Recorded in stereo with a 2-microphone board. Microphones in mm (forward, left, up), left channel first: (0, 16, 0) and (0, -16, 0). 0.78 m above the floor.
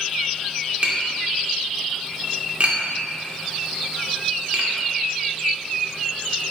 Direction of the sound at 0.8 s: 45° right (ahead or behind).